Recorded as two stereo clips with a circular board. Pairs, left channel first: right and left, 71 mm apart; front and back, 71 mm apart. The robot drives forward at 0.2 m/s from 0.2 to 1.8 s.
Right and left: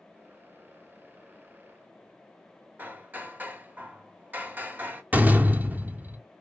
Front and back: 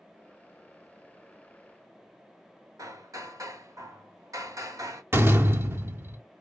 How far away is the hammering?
About 0.9 m.